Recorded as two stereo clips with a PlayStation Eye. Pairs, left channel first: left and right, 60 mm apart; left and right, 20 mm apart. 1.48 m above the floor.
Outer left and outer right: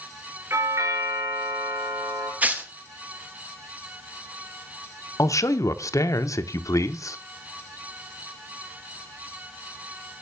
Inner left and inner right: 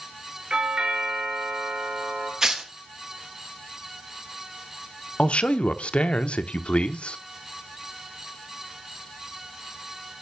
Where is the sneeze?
I don't hear a sneeze.